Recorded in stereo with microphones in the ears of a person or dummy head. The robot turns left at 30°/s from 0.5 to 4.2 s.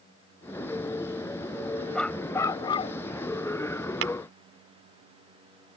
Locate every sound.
1.9 s a dog barking: 170° left; by 3.0 s 140° left
4.0 s tapping: 70° right (ahead or behind); by 4.1 s 65° right (ahead or behind)